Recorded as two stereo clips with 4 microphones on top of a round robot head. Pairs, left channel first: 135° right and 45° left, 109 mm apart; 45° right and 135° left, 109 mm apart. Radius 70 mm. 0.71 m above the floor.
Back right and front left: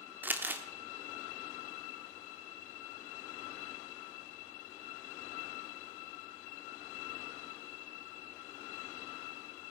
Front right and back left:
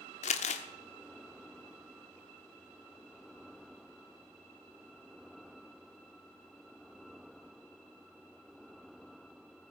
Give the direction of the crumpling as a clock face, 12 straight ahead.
1 o'clock.